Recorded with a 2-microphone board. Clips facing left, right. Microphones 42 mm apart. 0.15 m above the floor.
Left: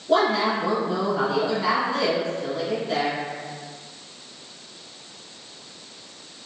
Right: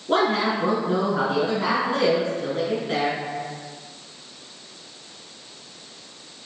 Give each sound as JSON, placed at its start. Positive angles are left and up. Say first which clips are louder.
{"t": 0.1, "sound": "a woman speaking", "louder": "left 1 dB", "side_deg": -40, "distance_m": 2.0}